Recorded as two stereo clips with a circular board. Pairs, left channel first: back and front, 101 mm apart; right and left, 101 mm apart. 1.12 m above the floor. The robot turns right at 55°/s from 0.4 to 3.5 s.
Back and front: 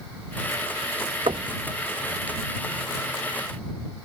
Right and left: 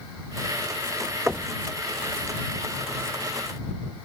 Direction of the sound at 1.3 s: 20° left.